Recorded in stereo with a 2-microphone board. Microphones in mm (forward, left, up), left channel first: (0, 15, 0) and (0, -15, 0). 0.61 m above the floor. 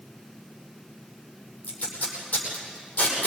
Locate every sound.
1.6 s tape being pulled: 45° left (ahead or behind), 9 m